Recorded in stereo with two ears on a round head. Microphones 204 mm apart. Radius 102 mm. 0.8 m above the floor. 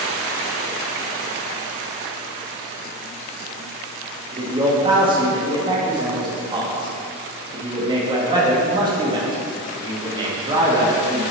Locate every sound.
4.3 s a man speaking: 20° right (ahead or behind), 1.5 m